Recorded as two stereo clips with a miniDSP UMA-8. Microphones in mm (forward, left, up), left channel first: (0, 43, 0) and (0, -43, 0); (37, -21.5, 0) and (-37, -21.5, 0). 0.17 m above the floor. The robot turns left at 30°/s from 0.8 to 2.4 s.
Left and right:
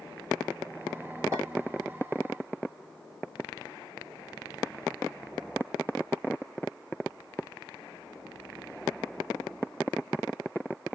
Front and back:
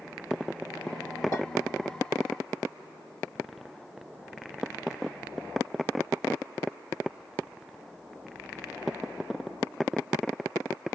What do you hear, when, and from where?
1.3 s a clink: 40° right, 2.0 m